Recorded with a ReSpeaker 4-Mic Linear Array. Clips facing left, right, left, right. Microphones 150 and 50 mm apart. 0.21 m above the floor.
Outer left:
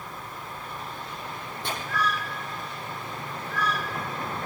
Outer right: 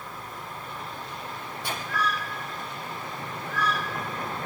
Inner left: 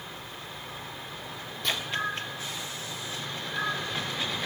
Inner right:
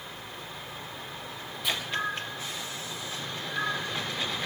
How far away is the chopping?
About 8.5 m.